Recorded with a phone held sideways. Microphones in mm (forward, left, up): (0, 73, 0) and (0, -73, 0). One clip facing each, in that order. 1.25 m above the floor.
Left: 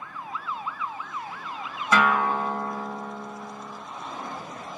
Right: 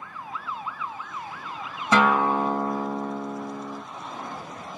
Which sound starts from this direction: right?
A guitar, at 1.9 s.